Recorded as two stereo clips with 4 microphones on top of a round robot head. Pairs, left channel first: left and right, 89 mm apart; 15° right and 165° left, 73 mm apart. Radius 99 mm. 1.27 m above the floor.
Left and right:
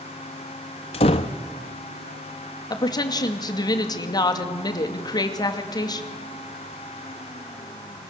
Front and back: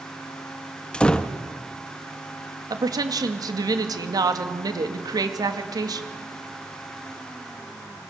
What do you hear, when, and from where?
0.9 s a door slam: 65° left, 0.9 m
2.7 s a woman speaking: 135° left, 2.5 m